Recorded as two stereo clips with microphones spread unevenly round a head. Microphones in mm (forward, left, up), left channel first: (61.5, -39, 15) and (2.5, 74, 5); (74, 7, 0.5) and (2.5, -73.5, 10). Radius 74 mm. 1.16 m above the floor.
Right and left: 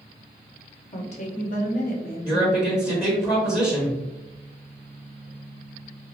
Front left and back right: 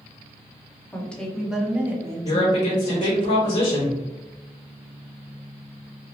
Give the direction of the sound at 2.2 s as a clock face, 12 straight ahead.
12 o'clock.